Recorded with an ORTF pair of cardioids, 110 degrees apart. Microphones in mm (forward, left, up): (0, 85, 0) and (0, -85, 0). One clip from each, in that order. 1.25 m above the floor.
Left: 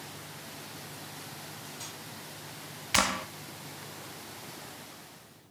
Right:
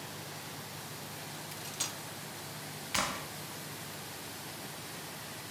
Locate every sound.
1.5 s cutlery clinking: 55° right, 1.5 m
2.9 s a clap: 40° left, 0.9 m